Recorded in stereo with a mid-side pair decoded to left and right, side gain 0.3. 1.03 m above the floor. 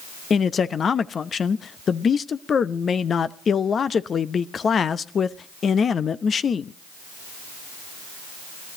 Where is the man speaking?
65° left, 0.8 m.